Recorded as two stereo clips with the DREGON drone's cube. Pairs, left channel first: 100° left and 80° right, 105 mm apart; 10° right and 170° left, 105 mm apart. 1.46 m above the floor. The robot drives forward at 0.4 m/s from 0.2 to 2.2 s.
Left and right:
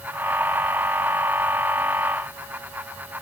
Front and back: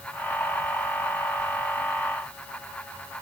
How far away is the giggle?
I don't hear a giggle.